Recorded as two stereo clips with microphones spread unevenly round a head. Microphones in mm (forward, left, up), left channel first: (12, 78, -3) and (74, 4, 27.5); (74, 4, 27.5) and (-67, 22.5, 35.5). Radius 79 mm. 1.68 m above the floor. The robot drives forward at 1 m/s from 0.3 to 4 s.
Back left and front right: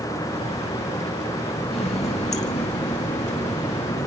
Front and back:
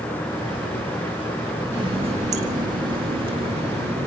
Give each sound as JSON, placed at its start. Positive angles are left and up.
{"t": 1.7, "sound": "a running tap", "azimuth_deg": 120, "distance_m": 1.3}